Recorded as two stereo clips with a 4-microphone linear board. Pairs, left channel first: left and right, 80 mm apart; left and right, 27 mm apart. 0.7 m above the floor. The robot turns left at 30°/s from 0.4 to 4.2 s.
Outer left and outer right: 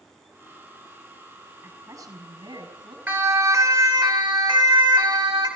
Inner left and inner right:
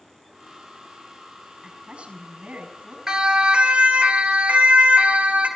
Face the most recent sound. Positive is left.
turn(degrees=-75)  # may be behind; listen again after turning